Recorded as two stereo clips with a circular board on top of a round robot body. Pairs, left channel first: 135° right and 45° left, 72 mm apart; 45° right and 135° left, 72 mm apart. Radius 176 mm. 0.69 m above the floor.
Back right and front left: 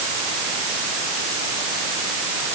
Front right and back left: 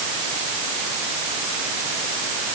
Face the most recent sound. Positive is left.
No sound to turn to.